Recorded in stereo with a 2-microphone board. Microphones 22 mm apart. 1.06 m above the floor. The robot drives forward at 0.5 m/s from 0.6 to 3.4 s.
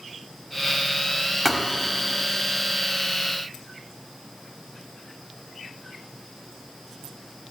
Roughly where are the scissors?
I don't hear scissors.